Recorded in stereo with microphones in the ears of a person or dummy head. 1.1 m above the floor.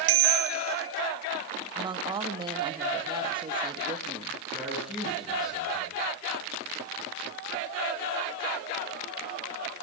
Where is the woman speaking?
25° right (ahead or behind), 1.4 m.